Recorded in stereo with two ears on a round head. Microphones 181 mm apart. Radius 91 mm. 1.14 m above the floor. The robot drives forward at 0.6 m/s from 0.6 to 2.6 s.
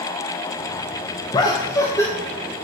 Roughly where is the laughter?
Left.